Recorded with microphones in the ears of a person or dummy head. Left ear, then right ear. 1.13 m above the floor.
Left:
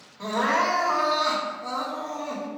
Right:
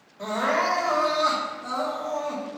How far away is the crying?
About 2 m.